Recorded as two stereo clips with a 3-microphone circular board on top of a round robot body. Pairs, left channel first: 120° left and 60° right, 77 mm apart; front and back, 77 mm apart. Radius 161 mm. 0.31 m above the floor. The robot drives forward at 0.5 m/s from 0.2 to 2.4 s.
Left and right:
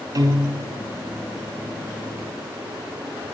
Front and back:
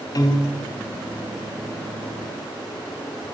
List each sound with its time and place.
0.1 s a piano: 30° right, 1.3 m; by 0.7 s 40° right, 1.1 m